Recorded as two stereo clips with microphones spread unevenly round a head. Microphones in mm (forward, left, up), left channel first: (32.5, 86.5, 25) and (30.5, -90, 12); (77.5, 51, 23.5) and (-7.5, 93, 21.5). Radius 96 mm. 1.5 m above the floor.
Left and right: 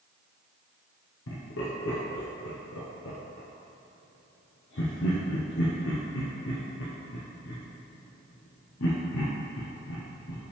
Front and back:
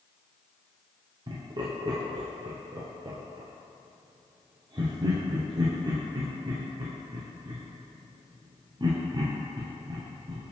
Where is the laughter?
110° left, 0.9 m.